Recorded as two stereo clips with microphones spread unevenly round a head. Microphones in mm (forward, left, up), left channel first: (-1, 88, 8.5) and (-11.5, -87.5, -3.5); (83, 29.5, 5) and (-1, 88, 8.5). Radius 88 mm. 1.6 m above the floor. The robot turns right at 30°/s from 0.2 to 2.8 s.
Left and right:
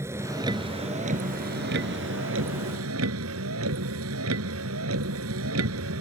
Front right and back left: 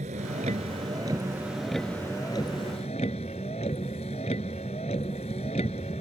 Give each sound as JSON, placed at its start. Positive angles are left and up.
{"t": 0.0, "sound": "a vehicle", "azimuth_deg": -170}